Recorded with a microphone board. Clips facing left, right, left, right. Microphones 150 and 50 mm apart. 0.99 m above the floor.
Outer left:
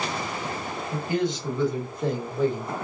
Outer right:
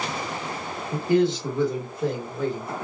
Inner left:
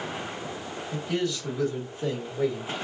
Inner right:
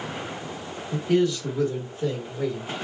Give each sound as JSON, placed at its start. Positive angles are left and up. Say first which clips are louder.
{"t": 0.9, "sound": "a man speaking", "louder": "outer right 6 dB, inner right 7 dB", "side_deg": -35, "distance_m": 1.2}